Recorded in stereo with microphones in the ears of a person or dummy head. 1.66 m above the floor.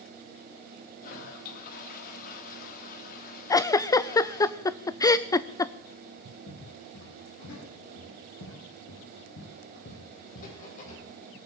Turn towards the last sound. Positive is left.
turn(degrees=35)  # may be behind; listen again after turning